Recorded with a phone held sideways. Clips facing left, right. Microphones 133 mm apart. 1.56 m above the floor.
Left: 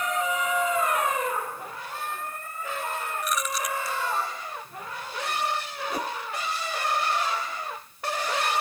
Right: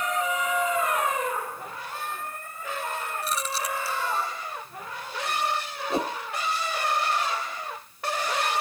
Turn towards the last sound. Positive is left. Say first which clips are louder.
# right 4 dB
turn(degrees=-25)  # may be behind; listen again after turning